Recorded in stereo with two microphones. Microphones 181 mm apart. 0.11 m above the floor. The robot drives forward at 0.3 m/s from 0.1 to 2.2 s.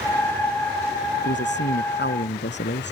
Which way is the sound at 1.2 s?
75° left (ahead or behind).